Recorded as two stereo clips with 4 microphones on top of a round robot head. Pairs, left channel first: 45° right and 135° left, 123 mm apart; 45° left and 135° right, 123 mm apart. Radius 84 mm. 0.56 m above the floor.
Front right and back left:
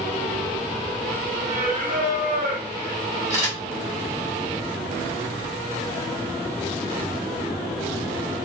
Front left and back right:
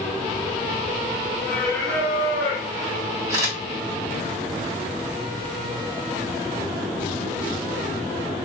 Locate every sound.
1.5 s singing: 125° left, 1.3 m
3.3 s a camera shutter: 175° left, 1.4 m